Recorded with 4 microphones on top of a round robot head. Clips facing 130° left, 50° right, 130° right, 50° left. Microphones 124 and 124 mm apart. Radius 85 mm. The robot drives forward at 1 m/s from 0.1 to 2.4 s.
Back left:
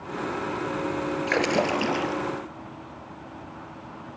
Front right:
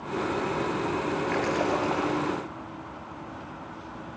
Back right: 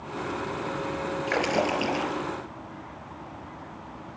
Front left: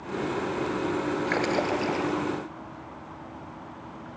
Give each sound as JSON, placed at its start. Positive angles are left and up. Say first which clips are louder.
{"t": 1.3, "sound": "a splash", "louder": "back left 4 dB, back right 3 dB", "azimuth_deg": 145, "distance_m": 3.0}